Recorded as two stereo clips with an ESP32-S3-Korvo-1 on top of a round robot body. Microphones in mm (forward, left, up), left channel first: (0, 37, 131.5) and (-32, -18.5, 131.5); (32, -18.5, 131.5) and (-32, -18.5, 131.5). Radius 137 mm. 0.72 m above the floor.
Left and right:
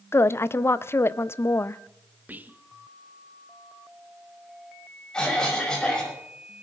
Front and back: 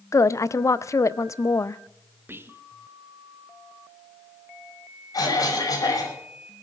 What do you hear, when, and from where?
0.1 s a woman speaking: 20° left, 0.6 m
2.3 s whispering: 165° right, 1.3 m
5.1 s a cough: 20° right, 5.5 m